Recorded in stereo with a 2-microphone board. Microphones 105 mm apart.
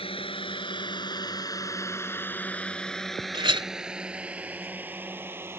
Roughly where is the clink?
Right.